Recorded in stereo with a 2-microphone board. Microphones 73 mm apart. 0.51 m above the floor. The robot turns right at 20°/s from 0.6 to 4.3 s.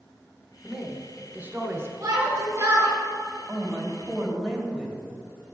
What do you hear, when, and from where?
0.6 s a man speaking: 15° right (ahead or behind), 1.2 m; by 1.9 s 35° right (ahead or behind), 1.2 m
2.0 s a shout: 45° right (ahead or behind), 2.5 m; by 2.9 s 25° right (ahead or behind), 2.5 m
3.5 s a man speaking: 10° right (ahead or behind), 2.5 m; by 5.0 s 5° left (ahead or behind), 2.5 m